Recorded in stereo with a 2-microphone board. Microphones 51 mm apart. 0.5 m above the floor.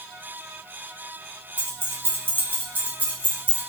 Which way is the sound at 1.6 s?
50° right (ahead or behind).